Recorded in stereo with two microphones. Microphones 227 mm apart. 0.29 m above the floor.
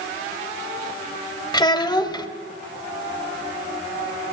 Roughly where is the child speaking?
Centre.